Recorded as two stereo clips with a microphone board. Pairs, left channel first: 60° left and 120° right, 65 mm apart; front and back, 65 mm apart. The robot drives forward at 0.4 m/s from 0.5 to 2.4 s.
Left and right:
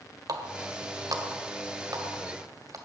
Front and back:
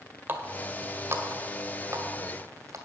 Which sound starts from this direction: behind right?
A running tap, at 0.3 s.